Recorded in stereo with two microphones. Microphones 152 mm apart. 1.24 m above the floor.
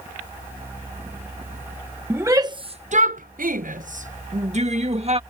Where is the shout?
15° right (ahead or behind); by 5.2 s 45° right (ahead or behind).